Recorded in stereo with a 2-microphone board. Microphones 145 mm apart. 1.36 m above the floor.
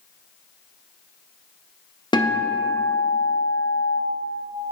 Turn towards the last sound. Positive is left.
turn(degrees=30)  # may be behind; listen again after turning